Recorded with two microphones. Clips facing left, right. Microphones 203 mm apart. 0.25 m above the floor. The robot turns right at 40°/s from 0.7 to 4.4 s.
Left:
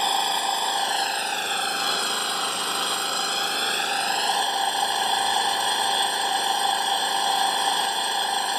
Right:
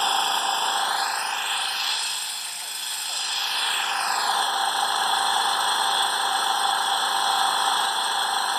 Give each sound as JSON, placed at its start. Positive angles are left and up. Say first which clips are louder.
{"t": 0.0, "sound": "an engine running", "louder": "left 1 dB", "azimuth_deg": 15}